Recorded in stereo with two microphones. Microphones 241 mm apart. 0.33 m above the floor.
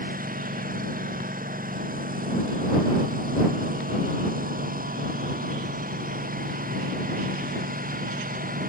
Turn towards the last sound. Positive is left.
turn(degrees=-35)  # may be behind; listen again after turning